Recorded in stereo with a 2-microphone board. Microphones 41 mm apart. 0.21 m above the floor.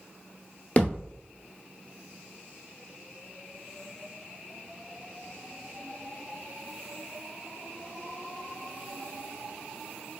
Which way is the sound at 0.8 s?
35° left (ahead or behind).